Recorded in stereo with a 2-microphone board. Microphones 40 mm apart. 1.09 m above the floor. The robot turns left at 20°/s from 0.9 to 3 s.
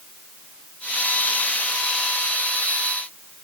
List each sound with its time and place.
Only background noise.